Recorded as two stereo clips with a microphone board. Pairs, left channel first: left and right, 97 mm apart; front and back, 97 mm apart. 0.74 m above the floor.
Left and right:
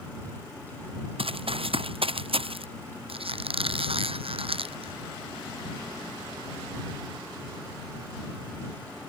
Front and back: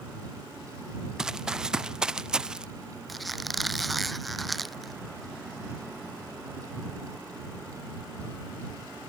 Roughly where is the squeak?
Right.